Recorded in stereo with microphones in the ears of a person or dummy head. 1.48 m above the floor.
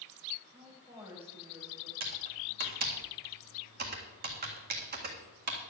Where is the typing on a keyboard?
50° right (ahead or behind), 1.7 m.